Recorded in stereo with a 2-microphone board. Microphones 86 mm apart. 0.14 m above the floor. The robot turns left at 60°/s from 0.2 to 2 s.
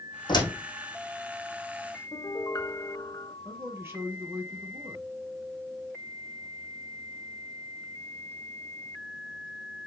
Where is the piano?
45° left (ahead or behind), 1.3 m.